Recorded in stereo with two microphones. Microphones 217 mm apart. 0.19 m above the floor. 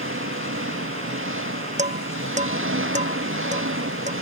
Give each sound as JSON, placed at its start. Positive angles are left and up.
{"t": 0.0, "sound": "an engine running", "side_deg": -60}
{"t": 1.8, "sound": "dishes clattering", "side_deg": -30}